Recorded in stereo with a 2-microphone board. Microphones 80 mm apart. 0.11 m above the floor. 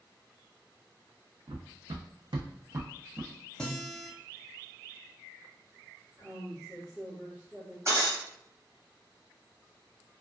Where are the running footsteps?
65° right (ahead or behind), 0.7 m; by 3.3 s 20° right (ahead or behind), 0.7 m.